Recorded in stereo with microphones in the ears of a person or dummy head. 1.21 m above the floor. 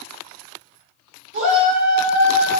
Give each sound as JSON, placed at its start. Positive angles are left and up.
{"t": 1.3, "sound": "a shout", "side_deg": -60, "distance_m": 1.1}